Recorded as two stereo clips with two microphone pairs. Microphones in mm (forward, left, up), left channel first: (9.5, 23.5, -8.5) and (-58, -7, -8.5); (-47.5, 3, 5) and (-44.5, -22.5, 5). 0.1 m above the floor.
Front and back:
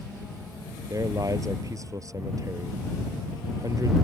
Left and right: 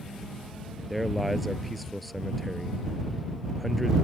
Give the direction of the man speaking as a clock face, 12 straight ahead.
6 o'clock.